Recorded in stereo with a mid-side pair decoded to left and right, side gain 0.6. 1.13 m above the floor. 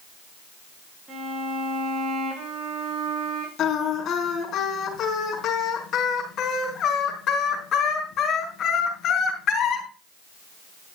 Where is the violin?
30° right, 8 m.